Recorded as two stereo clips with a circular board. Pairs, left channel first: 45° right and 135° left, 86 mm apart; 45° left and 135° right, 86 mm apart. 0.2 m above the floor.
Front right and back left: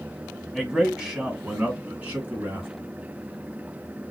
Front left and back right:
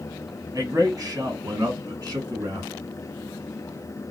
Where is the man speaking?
140° right, 1.6 m; by 2.7 s 165° right, 2.5 m.